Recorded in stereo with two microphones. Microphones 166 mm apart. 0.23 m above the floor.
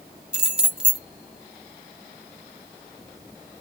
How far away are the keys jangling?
About 1.2 m.